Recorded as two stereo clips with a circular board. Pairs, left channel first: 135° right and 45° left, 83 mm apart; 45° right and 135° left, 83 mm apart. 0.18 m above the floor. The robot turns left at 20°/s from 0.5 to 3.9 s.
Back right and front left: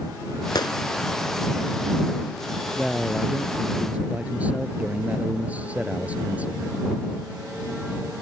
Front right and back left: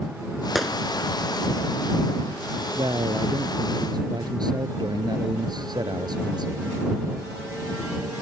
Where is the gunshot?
135° right; by 0.8 s 140° right.